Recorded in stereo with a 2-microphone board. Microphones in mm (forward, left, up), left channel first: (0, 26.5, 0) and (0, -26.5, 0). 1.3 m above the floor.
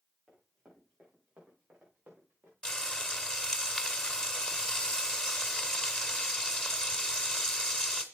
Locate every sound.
0.3 s running footsteps: 10° right (ahead or behind), 7.5 m; by 2.5 s 30° right (ahead or behind), 6.5 m
2.6 s frying: 15° left (ahead or behind), 1.6 m